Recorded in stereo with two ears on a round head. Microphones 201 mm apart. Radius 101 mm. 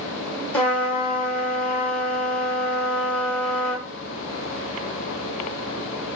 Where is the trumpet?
5° left (ahead or behind), 1.2 m.